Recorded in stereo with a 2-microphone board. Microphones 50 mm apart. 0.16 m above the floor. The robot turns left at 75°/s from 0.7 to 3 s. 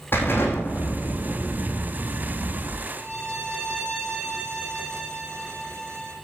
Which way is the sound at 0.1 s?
50° left.